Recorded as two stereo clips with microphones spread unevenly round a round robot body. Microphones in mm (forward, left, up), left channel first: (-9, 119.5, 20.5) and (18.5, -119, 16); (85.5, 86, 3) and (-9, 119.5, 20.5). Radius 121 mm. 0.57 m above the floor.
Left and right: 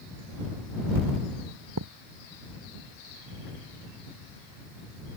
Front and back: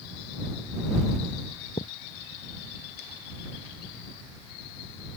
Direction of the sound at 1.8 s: 65° right.